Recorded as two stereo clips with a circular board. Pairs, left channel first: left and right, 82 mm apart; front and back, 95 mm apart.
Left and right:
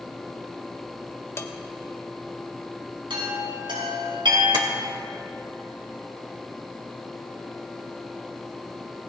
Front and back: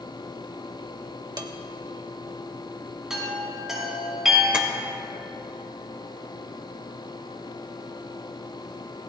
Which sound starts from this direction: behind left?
Dishes clattering, at 1.4 s.